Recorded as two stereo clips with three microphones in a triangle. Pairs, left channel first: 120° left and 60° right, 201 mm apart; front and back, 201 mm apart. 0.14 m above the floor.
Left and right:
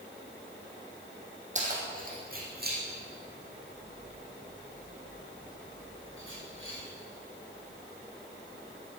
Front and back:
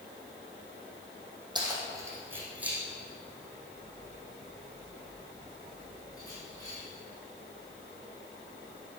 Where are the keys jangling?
110° right, 4 m; by 6.8 s 70° right, 8.5 m.